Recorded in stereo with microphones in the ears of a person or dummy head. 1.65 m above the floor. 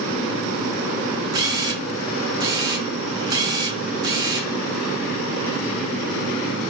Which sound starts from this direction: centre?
A camera shutter, at 1.3 s.